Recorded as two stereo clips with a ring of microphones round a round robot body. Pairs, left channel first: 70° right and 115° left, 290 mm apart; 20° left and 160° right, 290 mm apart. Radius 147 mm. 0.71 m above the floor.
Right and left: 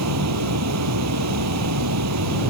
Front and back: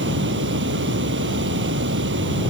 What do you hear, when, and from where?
0.0 s running water: 150° left